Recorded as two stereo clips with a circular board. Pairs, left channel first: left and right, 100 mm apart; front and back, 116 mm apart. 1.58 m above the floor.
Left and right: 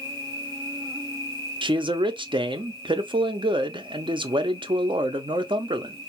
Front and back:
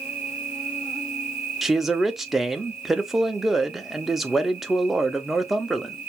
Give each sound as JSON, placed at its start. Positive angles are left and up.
{"t": 0.0, "sound": "an insect", "azimuth_deg": -115, "distance_m": 1.8}
{"t": 1.6, "sound": "a man speaking", "azimuth_deg": -95, "distance_m": 0.5}